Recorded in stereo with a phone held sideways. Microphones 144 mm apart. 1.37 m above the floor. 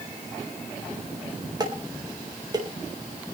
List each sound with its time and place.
1.6 s dishes clattering: 30° right (ahead or behind), 4.5 m